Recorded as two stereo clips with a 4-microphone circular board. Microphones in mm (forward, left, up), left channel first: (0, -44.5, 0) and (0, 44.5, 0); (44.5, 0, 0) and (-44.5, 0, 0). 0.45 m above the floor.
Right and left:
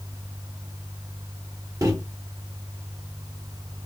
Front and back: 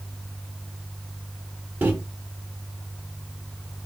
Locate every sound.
1.8 s a microwave: 120° left, 0.7 m